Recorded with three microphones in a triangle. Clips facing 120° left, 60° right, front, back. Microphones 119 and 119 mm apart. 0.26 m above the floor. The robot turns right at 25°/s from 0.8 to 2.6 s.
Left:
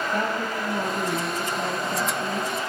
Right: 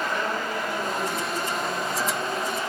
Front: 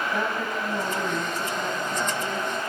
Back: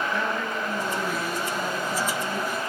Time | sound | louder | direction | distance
0.1 | a woman speaking | left 1 dB, even | 70° left | 5.5 m